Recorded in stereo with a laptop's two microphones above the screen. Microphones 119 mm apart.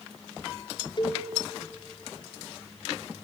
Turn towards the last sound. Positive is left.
turn(degrees=45)  # may be behind; listen again after turning